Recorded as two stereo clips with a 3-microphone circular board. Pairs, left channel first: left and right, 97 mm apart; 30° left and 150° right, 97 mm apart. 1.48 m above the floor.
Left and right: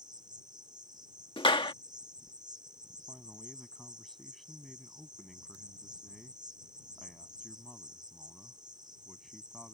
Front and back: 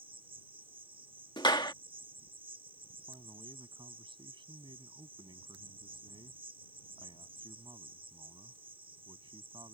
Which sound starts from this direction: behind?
A man speaking, at 3.1 s.